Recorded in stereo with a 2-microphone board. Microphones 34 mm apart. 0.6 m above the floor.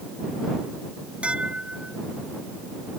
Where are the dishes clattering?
35° right (ahead or behind).